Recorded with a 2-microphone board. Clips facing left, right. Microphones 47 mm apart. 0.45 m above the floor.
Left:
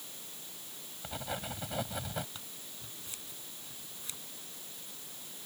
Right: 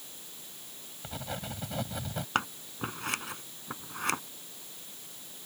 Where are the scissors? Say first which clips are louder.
Right 18 dB; 70° right (ahead or behind).